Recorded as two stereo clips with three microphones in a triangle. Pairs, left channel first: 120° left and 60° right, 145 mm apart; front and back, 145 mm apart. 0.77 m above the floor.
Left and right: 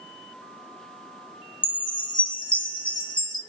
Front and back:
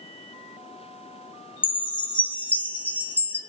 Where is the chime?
75° left, 1.0 m.